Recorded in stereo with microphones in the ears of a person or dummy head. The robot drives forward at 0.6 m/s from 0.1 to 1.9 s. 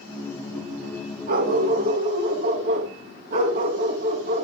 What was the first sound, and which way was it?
A dog barking, 50° right (ahead or behind).